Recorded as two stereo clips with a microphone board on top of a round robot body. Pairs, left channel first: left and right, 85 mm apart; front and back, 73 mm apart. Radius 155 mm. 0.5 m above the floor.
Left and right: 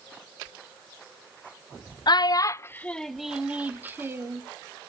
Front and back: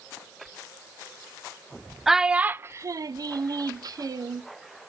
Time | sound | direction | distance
2.1 | a child speaking | 95° left | 0.6 m